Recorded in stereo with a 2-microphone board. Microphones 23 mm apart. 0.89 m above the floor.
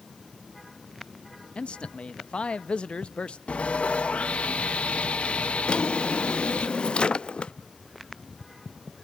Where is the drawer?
60° left (ahead or behind), 0.6 m.